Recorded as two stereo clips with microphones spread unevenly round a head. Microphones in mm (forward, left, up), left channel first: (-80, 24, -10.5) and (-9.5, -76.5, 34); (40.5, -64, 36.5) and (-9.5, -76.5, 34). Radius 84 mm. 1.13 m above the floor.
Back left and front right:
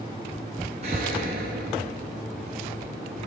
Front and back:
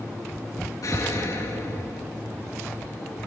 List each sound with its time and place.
0.8 s an explosion: straight ahead, 8.5 m